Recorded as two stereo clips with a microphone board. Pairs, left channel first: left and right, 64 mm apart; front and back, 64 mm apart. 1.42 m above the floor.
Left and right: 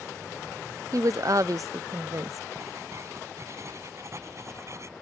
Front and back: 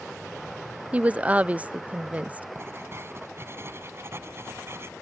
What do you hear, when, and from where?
0.9 s a woman speaking: 115° right
2.5 s writing: 130° right